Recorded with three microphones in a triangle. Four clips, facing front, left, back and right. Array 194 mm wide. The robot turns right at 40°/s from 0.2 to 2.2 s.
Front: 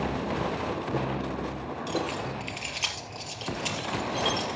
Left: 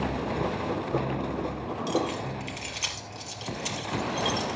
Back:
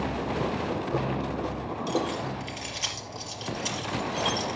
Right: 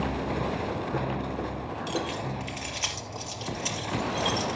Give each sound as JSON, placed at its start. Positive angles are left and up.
{"t": 1.9, "sound": "keys jangling", "azimuth_deg": -60, "distance_m": 3.5}